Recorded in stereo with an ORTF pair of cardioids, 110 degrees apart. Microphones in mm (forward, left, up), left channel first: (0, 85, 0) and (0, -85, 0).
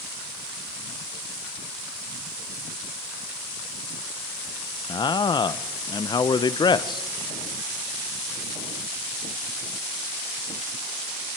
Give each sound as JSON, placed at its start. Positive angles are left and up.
{"t": 4.9, "sound": "a man speaking", "azimuth_deg": 25, "distance_m": 0.9}